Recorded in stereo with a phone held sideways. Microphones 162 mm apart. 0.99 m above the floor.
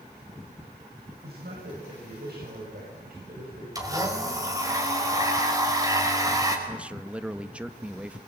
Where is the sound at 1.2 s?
80° right, 6 m; by 3.6 s 65° right (ahead or behind), 6 m.